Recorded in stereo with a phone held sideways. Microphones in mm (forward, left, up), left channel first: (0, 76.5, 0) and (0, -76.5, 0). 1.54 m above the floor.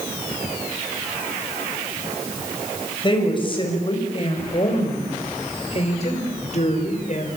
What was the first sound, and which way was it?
A woman speaking, 30° left (ahead or behind).